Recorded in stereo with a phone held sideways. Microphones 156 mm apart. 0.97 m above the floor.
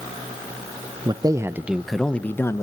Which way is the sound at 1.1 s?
25° right (ahead or behind).